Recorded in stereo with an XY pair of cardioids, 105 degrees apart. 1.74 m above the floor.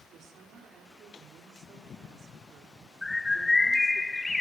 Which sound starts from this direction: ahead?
A bird, at 3.0 s.